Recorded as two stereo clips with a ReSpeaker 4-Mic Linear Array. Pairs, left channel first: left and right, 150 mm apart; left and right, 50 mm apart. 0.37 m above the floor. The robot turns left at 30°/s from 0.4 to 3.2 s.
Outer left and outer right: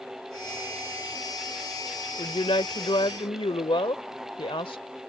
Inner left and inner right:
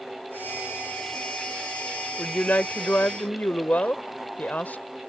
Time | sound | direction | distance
2.2 | a woman speaking | 100° left | ?